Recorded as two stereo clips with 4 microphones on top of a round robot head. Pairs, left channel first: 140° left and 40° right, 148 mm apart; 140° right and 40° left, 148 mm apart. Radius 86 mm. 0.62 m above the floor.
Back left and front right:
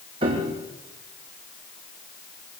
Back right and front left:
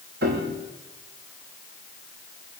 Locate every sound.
0.2 s a piano: 15° left, 5.5 m